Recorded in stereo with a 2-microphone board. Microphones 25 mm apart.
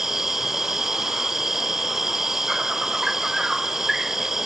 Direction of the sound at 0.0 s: 15° right (ahead or behind).